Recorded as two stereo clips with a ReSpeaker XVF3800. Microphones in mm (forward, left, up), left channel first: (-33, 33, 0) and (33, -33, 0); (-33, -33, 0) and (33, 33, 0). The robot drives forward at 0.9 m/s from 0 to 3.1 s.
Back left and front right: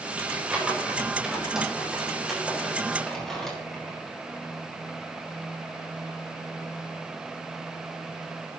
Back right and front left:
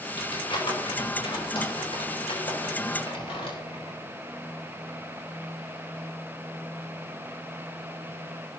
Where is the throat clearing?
No throat clearing in this recording.